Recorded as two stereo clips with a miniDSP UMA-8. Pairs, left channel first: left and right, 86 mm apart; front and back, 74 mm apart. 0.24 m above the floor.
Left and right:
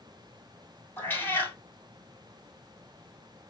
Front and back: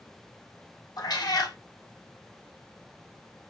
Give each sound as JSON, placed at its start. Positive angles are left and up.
{"t": 1.0, "sound": "a cat meowing", "azimuth_deg": 25, "distance_m": 1.7}